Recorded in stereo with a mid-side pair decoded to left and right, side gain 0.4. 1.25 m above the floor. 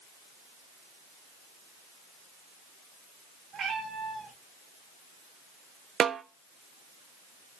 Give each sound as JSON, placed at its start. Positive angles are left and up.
{"t": 3.5, "sound": "a cat meowing", "azimuth_deg": -60, "distance_m": 3.0}
{"t": 6.0, "sound": "a snare drum", "azimuth_deg": -55, "distance_m": 0.7}